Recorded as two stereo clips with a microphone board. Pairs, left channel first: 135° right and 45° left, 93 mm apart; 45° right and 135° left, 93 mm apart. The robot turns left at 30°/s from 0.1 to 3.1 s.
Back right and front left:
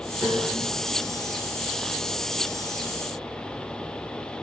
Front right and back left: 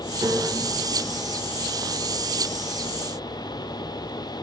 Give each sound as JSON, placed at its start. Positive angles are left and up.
{"t": 0.2, "sound": "a piano", "azimuth_deg": 155, "distance_m": 6.0}